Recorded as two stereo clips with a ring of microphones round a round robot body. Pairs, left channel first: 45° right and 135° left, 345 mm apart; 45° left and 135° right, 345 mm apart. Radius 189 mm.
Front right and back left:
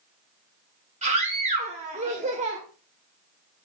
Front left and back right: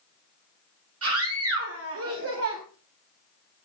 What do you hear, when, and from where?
1.0 s a scream: 160° right, 1.7 m